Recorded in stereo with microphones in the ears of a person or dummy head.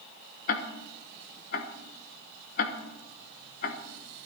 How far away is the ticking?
About 1.1 m.